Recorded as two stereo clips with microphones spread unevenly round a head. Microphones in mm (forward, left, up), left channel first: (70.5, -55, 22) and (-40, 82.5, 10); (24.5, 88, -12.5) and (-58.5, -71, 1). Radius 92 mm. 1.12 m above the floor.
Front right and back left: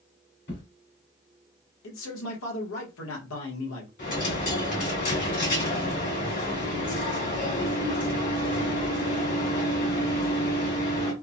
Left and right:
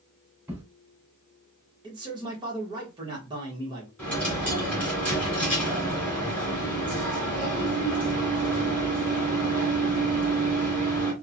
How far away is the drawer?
About 1.8 m.